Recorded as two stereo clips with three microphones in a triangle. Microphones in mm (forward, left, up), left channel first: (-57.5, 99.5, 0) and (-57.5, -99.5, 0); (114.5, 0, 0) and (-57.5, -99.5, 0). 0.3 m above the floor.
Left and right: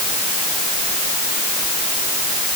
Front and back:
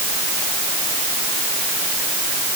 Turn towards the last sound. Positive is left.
No sound to turn to.